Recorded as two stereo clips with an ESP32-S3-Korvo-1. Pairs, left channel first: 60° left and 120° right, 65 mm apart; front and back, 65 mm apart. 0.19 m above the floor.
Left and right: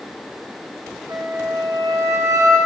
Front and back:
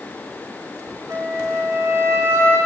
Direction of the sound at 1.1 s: 140° right.